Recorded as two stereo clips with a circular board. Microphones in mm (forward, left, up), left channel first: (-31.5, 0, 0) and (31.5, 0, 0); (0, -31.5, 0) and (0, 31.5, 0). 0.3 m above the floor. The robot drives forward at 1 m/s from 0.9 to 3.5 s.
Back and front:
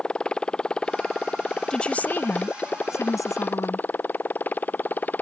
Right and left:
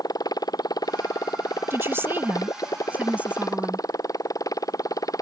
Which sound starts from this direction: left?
A woman speaking, at 1.7 s.